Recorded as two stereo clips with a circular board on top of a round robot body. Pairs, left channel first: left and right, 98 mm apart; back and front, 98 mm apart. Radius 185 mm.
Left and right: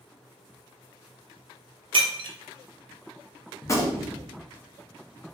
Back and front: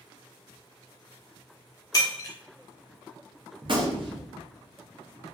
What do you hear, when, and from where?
1.9 s breaking glass: 125° right, 0.5 m
3.6 s a gunshot: 30° left, 0.7 m